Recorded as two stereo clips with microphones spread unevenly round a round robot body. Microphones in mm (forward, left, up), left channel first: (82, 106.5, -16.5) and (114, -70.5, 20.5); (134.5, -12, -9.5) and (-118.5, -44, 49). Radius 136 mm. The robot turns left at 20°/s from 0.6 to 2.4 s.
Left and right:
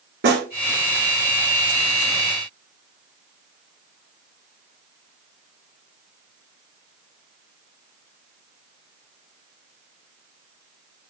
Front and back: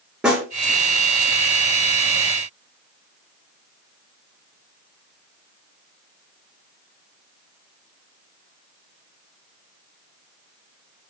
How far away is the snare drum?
About 5 m.